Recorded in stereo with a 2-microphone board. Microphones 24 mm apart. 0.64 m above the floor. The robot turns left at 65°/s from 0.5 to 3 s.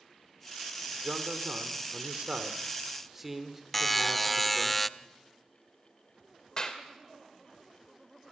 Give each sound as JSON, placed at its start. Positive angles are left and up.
{"t": 1.0, "sound": "a man speaking", "azimuth_deg": -40, "distance_m": 2.0}
{"t": 3.7, "sound": "a buzzer", "side_deg": 10, "distance_m": 0.5}
{"t": 6.6, "sound": "a clap", "side_deg": 30, "distance_m": 2.5}